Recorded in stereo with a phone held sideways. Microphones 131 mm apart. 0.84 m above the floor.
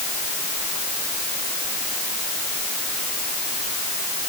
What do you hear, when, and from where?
Only background noise.